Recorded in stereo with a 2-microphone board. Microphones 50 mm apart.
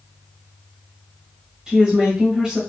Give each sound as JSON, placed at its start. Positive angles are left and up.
{"t": 1.7, "sound": "a woman speaking", "side_deg": -15, "distance_m": 1.4}